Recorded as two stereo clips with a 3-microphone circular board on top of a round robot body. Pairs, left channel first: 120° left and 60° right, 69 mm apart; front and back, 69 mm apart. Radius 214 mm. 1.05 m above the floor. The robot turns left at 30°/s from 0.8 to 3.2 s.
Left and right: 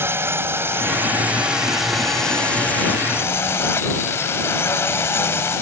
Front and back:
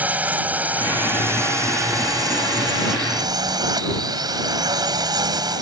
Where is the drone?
115° right; by 5.6 s 175° left.